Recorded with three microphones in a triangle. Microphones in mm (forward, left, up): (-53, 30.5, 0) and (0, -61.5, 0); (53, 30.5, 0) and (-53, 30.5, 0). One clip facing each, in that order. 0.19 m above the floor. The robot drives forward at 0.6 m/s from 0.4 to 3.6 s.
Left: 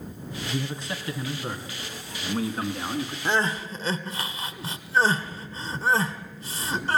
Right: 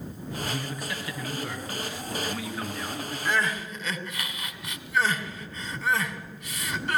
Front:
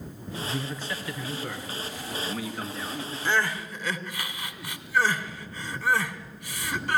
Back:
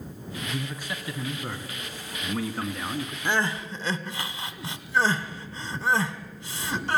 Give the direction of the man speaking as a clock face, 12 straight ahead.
9 o'clock.